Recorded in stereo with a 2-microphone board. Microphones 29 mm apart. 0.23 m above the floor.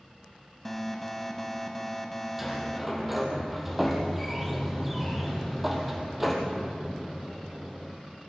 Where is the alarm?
5° left (ahead or behind), 1.4 m.